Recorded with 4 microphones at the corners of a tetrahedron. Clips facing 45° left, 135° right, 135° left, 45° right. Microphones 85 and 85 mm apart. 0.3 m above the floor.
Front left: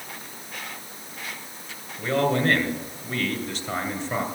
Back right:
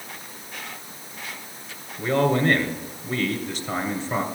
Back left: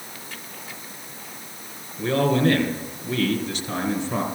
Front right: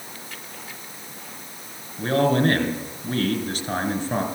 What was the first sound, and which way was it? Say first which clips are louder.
A man speaking: back right 2 dB, front right 1 dB; 40° right.